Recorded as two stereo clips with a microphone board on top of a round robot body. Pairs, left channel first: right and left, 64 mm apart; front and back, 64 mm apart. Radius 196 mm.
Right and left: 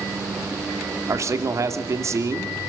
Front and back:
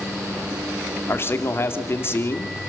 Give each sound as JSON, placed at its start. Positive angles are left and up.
{"t": 1.1, "sound": "a man speaking", "azimuth_deg": 50, "distance_m": 2.5}